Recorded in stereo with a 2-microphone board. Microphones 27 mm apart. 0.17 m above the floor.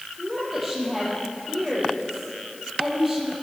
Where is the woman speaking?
5° right (ahead or behind), 4.5 m.